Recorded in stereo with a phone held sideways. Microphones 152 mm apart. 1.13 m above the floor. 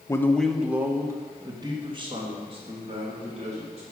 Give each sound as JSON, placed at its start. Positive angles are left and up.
{"t": 0.1, "sound": "a man speaking", "side_deg": 20, "distance_m": 0.7}